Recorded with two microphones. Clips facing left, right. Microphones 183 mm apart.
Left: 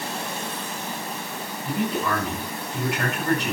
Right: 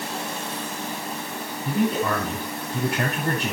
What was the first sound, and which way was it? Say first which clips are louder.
A man speaking: right 3 dB; 40° right (ahead or behind).